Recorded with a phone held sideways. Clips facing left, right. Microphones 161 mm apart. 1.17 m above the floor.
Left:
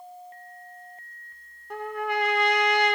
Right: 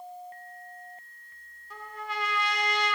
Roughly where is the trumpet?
Left.